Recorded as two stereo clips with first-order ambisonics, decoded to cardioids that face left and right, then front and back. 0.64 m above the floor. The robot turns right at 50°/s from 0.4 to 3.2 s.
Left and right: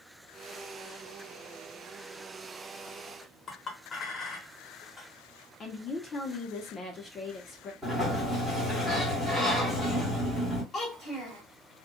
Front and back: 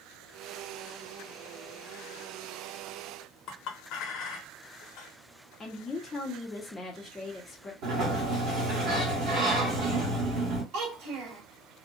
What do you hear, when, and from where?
3.5 s a clink: 30° left, 0.7 m
5.6 s a woman speaking: 55° left, 0.7 m
7.8 s a sliding door: straight behind, 1.6 m
10.7 s a child speaking: 160° left, 1.5 m